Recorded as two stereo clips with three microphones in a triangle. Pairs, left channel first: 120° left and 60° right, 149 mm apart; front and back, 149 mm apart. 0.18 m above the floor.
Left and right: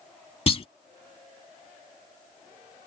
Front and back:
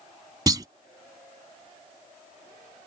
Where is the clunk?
130° left.